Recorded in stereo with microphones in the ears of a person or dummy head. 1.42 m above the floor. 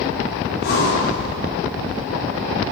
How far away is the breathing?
About 3 m.